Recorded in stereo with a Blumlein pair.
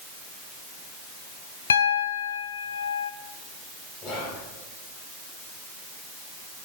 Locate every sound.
1.7 s a piano: 65° left, 0.5 m
4.0 s whispering: 30° left, 3.5 m